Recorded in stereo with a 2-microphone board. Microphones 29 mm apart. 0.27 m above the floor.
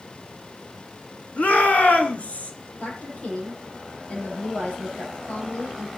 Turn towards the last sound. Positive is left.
turn(degrees=55)  # may be behind; listen again after turning